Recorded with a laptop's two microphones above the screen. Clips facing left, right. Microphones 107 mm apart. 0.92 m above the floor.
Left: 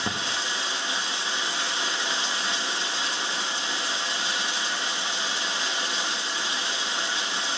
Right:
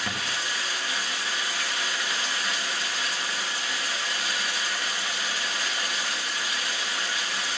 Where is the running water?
25° left (ahead or behind), 1.0 m.